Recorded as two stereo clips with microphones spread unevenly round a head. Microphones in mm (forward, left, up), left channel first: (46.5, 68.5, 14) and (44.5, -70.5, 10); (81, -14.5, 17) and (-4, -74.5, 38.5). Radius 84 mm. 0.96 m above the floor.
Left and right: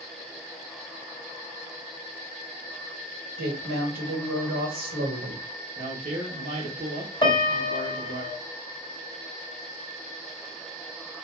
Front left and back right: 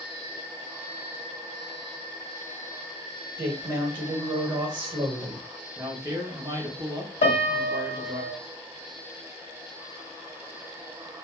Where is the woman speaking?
95° right, 1.4 m.